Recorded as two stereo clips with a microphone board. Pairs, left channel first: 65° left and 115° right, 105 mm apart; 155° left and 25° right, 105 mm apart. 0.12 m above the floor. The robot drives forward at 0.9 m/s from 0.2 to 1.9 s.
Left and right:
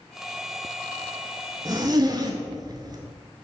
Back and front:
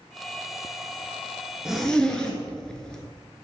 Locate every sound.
1.6 s a zipper: 100° right, 0.9 m; by 3.0 s 125° right, 0.9 m